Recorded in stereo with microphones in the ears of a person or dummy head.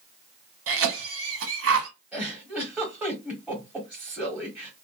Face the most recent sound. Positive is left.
turn(degrees=-5)  # may be behind; listen again after turning